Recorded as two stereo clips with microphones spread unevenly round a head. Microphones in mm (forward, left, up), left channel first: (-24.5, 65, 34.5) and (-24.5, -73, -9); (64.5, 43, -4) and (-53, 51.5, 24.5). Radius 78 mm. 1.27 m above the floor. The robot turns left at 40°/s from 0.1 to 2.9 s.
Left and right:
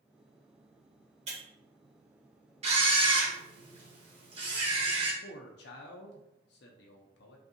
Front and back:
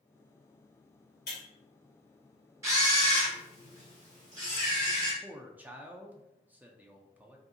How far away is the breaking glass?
About 1.7 m.